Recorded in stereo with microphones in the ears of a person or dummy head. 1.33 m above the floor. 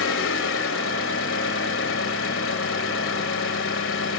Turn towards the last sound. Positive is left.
turn(degrees=80)